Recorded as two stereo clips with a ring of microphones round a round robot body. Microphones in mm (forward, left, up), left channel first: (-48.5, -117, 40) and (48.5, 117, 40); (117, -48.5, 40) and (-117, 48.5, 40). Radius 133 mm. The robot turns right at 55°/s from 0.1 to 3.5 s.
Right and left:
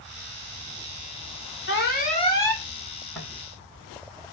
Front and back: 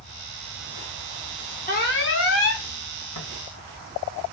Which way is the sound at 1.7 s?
75° right.